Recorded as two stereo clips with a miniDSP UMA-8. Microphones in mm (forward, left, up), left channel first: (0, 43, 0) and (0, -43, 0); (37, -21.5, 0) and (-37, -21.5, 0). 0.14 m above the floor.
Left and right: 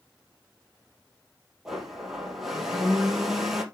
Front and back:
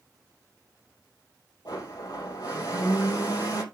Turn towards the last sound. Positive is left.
turn(degrees=-5)